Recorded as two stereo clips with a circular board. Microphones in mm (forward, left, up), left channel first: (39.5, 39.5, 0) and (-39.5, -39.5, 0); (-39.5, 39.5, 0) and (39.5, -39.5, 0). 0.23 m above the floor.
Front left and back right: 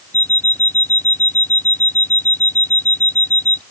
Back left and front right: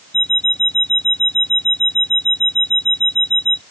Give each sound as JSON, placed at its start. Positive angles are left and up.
{"t": 0.1, "sound": "an alarm clock", "azimuth_deg": 120}